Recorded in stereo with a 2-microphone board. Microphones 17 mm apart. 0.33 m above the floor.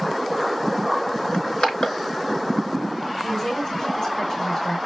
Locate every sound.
1.3 s crushing: 70° left (ahead or behind), 5 m
3.2 s a woman speaking: 40° left (ahead or behind), 1.4 m